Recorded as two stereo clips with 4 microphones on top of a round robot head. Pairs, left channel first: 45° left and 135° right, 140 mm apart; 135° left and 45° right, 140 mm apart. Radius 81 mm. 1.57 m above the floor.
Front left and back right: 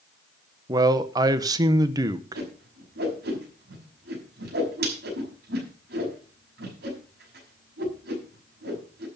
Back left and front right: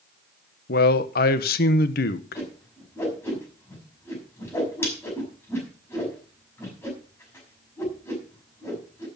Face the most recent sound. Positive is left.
turn(degrees=-150)